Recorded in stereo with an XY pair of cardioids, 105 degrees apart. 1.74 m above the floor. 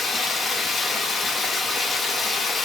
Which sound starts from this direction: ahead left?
Running water, at 0.0 s.